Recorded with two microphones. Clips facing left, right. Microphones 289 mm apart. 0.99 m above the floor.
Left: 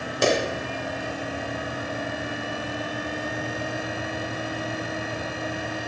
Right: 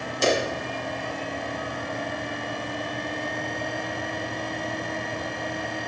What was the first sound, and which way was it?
A clap, 80° left.